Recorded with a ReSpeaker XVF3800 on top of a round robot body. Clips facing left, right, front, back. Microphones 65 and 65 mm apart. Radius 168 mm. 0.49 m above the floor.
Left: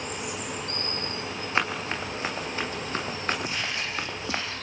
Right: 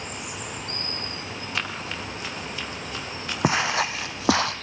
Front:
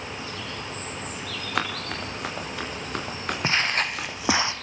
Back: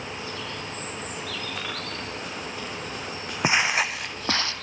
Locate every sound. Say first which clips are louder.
1.6 s running footsteps: left 4 dB, front 4 dB; 30° left, 6 m; by 4.4 s 45° left, 5 m
3.4 s footsteps: right 8 dB, back 3 dB; 105° right, 1.5 m; by 4.5 s 65° right, 1.1 m